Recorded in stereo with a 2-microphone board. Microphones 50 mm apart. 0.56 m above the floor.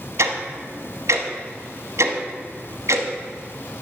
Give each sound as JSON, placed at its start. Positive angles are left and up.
{"t": 0.2, "sound": "ticking", "side_deg": -80, "distance_m": 1.0}